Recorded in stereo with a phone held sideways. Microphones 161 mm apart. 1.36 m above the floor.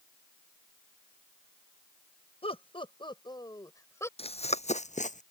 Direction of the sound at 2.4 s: 35° left (ahead or behind).